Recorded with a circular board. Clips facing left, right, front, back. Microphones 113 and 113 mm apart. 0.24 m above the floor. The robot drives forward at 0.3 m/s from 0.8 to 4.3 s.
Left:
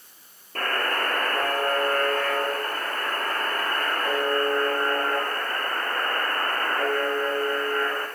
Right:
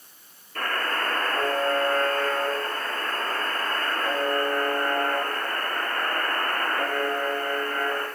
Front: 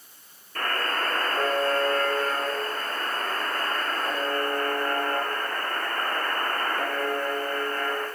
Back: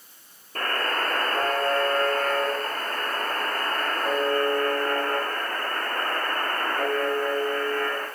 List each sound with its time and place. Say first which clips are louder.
0.6 s a buzzer: left 1 dB, back 1 dB; 130° left, 2.5 m; by 8.1 s 145° left, 3.5 m